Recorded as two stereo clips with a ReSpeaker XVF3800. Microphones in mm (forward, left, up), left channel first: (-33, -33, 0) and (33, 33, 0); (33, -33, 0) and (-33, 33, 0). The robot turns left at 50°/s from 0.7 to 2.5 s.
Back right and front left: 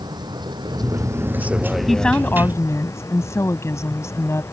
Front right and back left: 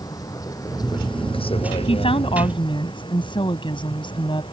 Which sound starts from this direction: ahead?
A vehicle, at 0.0 s.